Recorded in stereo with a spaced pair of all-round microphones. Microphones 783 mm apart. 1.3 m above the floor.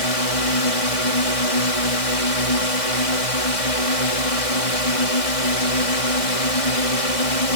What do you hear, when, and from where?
0.0 s a drone: 40° left (ahead or behind)